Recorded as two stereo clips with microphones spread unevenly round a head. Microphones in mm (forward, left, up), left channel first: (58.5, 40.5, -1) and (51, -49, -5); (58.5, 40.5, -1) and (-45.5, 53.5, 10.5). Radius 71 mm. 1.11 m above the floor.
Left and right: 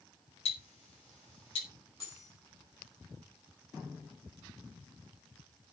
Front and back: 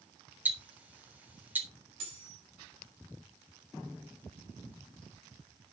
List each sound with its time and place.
0.5 s ticking: 100° left, 3.5 m
2.0 s cutlery clinking: 150° left, 6 m